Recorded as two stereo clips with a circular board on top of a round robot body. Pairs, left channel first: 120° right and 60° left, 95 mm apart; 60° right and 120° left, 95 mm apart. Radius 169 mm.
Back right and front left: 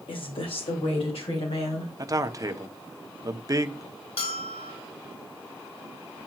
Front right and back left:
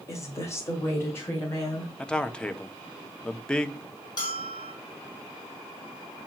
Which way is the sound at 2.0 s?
20° left.